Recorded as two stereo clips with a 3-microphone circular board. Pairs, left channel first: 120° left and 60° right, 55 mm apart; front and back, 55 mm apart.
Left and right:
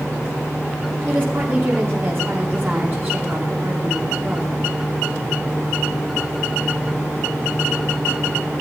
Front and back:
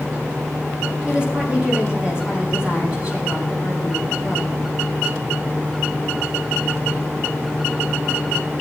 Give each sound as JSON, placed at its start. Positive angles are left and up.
{"t": 1.1, "sound": "a woman speaking", "azimuth_deg": -110, "distance_m": 4.5}